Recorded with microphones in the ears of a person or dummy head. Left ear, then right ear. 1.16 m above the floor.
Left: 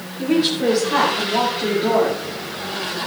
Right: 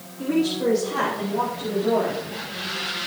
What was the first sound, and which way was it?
A woman speaking, 70° left (ahead or behind).